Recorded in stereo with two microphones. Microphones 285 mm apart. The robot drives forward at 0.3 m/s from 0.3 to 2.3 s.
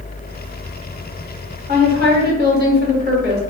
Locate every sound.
1.7 s a woman speaking: 30° right (ahead or behind), 1.1 m